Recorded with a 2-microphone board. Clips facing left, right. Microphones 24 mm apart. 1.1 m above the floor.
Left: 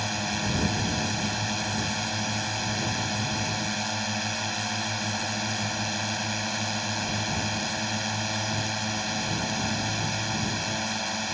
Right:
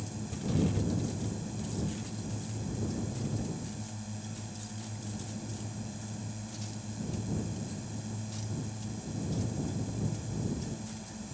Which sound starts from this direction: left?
A drone, at 0.0 s.